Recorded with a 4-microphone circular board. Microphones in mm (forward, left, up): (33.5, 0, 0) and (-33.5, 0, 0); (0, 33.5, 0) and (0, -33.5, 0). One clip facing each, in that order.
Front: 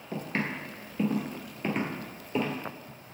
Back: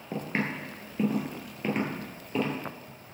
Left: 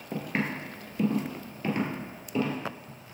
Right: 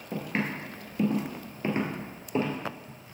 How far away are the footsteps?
About 1.6 m.